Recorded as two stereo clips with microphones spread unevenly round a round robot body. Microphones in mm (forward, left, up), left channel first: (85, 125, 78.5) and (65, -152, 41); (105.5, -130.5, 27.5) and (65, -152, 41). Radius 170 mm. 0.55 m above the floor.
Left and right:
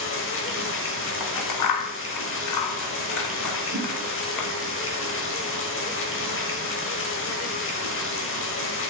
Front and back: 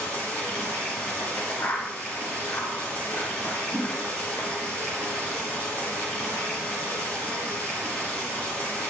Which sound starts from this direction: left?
Scissors, at 1.2 s.